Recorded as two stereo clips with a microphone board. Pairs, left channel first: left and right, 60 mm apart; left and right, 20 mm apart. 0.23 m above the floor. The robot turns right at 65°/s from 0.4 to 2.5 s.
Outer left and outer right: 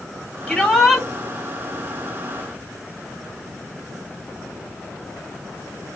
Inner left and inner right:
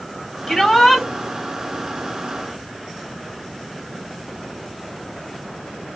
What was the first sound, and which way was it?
A shout, 10° left (ahead or behind).